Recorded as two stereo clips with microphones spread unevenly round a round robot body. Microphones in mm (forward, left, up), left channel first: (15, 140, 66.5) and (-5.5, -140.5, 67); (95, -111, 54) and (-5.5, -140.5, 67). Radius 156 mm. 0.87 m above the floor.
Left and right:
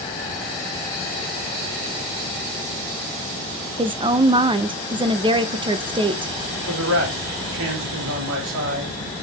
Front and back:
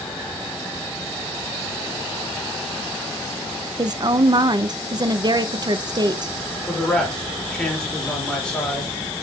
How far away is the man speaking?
About 4 m.